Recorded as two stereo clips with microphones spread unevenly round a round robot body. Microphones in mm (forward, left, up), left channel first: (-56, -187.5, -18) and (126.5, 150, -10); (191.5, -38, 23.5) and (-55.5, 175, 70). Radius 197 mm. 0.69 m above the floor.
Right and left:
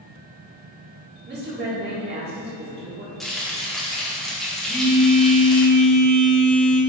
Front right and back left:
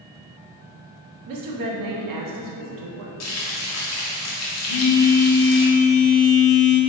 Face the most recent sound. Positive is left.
turn(degrees=-30)